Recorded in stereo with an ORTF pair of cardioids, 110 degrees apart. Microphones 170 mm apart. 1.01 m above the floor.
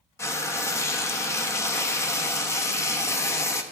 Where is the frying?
15° left, 0.9 m.